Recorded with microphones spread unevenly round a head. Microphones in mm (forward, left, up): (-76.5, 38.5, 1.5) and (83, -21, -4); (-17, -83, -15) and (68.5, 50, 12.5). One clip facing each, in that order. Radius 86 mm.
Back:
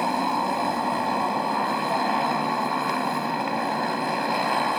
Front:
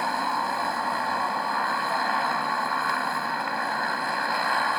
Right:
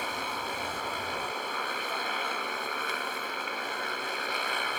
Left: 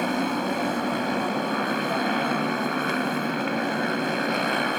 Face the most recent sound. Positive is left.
turn(degrees=90)